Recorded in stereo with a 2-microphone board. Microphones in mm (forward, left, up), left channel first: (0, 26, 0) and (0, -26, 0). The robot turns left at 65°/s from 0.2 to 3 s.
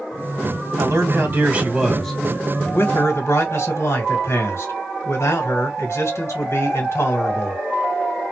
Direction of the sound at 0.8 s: 100° right.